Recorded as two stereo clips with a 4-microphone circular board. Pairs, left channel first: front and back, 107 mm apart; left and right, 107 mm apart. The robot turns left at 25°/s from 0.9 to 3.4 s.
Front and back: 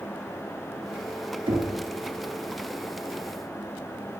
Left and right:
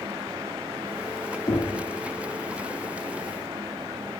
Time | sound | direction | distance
1.5 | knocking | 145° left | 2.0 m